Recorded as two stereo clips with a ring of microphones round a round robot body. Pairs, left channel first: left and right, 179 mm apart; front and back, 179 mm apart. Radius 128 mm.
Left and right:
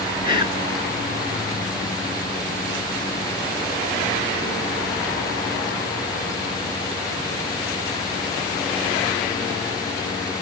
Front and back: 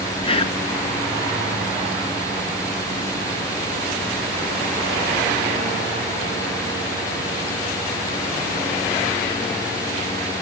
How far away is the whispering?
About 6 m.